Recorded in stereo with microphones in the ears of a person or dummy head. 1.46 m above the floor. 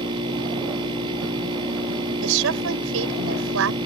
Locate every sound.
0.0 s a machine running: 30° right (ahead or behind)
2.2 s a woman speaking: 75° right (ahead or behind)